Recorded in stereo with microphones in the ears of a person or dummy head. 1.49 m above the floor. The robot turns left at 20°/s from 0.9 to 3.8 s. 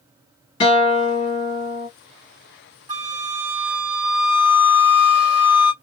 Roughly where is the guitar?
Left.